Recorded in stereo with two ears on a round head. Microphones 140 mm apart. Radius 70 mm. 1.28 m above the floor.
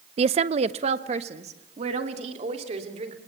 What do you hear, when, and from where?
0.2 s a woman speaking: 40° right (ahead or behind), 0.5 m; by 3.2 s 45° right (ahead or behind), 3.5 m